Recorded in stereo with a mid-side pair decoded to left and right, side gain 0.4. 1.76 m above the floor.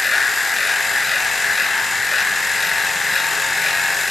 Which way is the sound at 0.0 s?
25° left.